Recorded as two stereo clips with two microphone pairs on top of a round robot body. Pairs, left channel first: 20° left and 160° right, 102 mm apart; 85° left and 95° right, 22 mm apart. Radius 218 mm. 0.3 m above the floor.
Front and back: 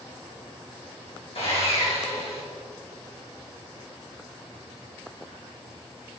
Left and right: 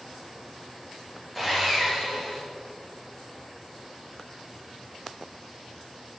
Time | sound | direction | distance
1.4 | sawing | 5° left | 2.5 m